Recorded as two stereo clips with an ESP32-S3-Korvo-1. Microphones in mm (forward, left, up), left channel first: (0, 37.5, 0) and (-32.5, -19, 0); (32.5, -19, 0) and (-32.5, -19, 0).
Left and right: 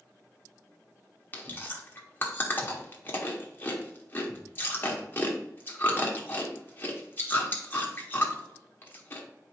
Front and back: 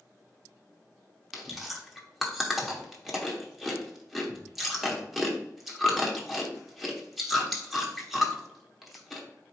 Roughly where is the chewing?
Left.